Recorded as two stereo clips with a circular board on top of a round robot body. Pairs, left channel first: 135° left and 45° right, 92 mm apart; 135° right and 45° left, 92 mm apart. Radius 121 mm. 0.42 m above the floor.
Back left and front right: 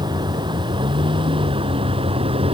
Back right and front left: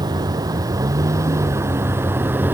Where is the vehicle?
Straight ahead; by 2.5 s 25° right.